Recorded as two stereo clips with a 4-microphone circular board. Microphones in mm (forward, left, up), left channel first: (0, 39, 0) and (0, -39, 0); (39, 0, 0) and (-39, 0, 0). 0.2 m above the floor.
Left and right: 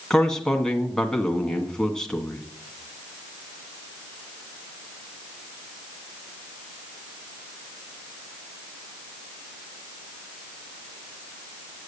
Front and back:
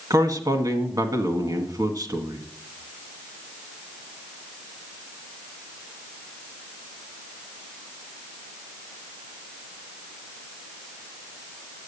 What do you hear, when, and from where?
0.1 s a man speaking: 170° left, 1.7 m